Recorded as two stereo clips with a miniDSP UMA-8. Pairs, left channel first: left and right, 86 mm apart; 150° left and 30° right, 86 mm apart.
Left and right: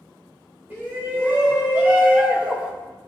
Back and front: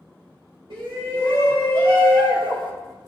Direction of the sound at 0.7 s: 15° right.